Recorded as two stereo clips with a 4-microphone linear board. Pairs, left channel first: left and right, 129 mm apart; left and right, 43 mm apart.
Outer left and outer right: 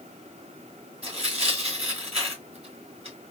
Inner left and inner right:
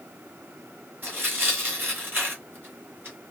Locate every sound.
1.0 s tearing paper: 55° right (ahead or behind), 3 m